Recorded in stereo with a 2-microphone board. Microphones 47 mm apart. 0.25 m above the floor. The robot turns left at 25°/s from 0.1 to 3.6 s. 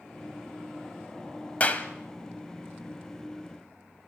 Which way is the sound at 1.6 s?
30° left (ahead or behind).